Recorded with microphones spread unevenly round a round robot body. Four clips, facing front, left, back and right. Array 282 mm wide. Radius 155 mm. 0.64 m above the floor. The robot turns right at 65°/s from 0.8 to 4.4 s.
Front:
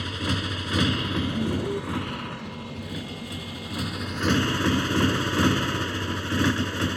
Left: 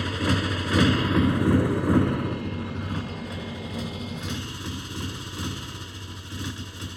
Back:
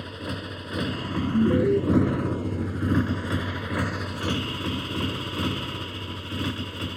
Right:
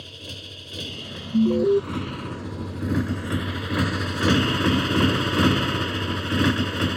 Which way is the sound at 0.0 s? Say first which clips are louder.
Left 16 dB, front 4 dB; 65° left.